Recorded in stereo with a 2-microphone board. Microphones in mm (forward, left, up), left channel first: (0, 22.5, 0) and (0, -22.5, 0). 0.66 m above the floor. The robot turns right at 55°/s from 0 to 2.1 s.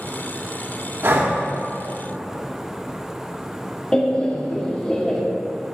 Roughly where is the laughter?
Centre.